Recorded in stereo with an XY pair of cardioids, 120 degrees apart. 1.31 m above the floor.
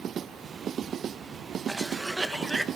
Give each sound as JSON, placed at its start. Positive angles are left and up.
{"t": 1.7, "sound": "a cough", "azimuth_deg": -15, "distance_m": 1.7}